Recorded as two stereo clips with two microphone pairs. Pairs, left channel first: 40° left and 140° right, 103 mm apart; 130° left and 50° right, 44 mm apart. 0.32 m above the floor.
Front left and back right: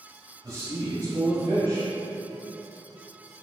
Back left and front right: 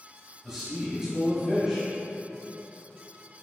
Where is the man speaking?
115° right, 1.5 m.